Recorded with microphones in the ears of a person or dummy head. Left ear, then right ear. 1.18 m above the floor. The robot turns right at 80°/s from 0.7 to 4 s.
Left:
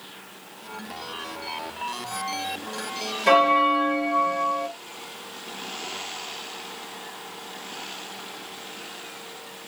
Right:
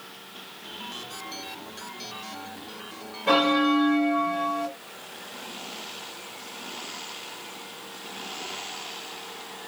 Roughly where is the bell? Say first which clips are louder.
Left 4 dB; behind left.